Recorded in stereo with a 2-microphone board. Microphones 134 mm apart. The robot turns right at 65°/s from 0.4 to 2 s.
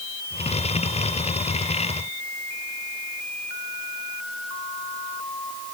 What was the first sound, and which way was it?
Only background noise.